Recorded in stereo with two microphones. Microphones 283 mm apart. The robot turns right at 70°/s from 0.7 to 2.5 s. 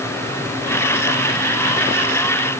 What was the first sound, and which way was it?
Only background noise.